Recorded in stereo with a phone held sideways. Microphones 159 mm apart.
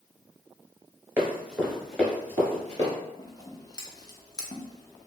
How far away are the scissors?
About 0.6 m.